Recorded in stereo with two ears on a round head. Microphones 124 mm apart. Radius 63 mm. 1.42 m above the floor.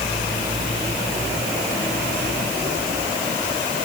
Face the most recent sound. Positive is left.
No sound to turn to.